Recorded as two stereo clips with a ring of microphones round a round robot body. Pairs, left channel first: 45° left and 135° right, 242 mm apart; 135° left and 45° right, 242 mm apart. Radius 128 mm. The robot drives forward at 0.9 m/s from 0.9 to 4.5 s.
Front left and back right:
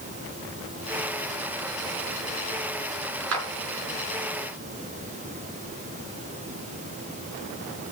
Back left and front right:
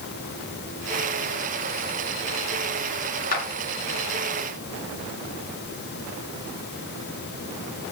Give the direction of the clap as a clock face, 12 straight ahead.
6 o'clock.